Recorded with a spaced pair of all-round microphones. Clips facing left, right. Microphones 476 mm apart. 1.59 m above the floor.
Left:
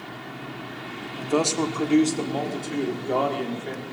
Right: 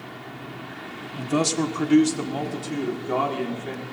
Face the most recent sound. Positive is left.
turn(degrees=-25)  # may be behind; listen again after turning